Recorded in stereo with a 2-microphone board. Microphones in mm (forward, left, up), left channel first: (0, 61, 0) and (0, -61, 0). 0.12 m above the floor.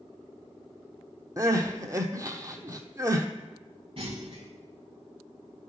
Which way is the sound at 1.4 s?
30° right (ahead or behind).